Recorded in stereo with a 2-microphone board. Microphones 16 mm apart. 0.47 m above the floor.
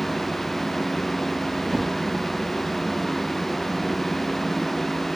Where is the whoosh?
25° right (ahead or behind), 0.6 m.